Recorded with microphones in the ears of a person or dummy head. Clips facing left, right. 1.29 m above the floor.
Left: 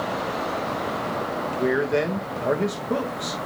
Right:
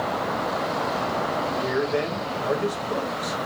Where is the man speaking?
40° left (ahead or behind), 1.1 m.